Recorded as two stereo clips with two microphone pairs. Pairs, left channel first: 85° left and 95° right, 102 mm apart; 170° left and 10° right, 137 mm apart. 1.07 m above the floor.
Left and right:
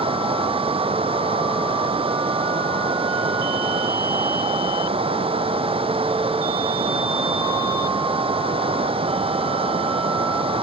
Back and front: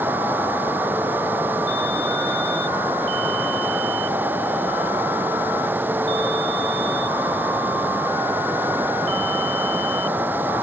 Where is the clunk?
I don't hear a clunk.